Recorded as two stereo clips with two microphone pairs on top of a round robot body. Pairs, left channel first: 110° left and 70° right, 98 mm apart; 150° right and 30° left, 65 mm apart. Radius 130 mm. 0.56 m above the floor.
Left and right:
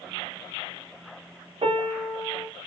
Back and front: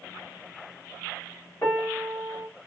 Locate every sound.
1.6 s a piano: 85° right, 3 m